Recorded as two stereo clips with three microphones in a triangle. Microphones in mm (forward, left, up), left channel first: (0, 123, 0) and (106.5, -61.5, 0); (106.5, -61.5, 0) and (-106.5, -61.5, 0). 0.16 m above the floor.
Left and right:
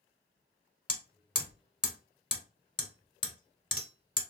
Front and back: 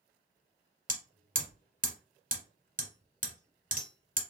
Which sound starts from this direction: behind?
Hammering, at 0.9 s.